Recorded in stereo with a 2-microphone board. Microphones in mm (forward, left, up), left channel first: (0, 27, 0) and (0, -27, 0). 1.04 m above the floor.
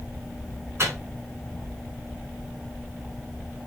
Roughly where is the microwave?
Right.